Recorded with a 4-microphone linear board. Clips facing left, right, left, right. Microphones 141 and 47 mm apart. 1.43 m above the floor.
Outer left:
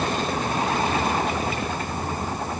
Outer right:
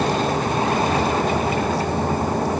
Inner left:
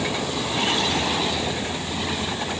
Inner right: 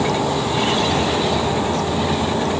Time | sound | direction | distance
0.0 | a vehicle | 85° right | ?